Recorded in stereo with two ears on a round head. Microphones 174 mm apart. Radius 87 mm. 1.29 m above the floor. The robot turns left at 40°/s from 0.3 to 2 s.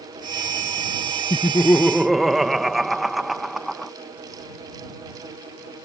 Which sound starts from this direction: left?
Laughter, at 1.3 s.